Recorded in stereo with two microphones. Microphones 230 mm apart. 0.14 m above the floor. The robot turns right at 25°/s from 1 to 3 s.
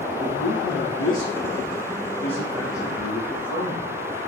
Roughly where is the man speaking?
Behind left.